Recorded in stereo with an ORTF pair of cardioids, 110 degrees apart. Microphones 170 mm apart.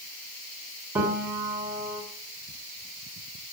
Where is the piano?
15° right, 3.5 m.